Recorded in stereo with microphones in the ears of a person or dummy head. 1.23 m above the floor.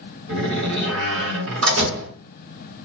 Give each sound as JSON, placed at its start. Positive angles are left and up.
{"t": 0.3, "sound": "a door slam", "side_deg": -80, "distance_m": 1.6}